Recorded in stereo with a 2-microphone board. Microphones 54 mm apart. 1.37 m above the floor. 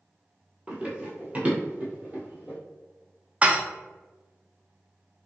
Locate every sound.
0.7 s running footsteps: 20° right (ahead or behind), 1.4 m; by 2.6 s 30° right (ahead or behind), 1.9 m
3.4 s dishes clattering: 25° right (ahead or behind), 0.5 m